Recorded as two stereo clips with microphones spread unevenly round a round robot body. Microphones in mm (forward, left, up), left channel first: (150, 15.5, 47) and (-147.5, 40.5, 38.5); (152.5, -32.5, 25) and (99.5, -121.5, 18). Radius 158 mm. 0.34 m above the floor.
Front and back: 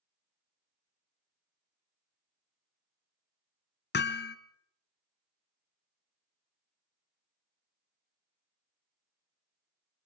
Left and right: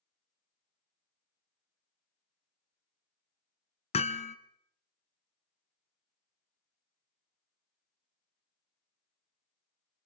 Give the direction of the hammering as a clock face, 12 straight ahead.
10 o'clock.